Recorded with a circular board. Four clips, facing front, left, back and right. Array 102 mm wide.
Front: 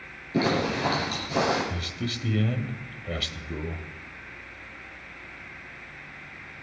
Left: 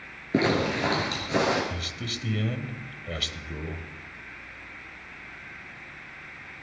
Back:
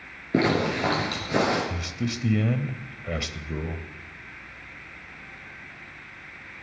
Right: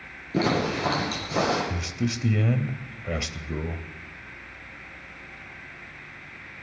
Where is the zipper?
145° left, 4.5 m.